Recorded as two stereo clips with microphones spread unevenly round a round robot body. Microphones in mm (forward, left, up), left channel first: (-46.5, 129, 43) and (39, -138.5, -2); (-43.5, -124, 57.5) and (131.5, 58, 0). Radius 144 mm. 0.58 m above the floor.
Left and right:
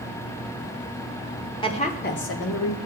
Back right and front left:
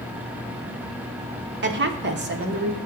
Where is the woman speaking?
30° left, 1.3 m; by 2.8 s 90° left, 1.3 m.